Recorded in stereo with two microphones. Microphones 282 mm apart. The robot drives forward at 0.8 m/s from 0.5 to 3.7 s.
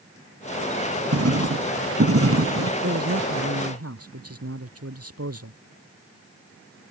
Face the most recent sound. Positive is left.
turn(degrees=-55)  # may be behind; listen again after turning